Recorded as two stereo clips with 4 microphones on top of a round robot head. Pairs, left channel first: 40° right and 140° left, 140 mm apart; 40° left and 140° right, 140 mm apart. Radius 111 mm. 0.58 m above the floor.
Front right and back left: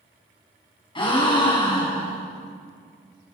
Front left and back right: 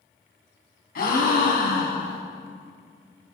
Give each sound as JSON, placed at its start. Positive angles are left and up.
{"t": 0.9, "sound": "a gasp", "azimuth_deg": 20, "distance_m": 2.5}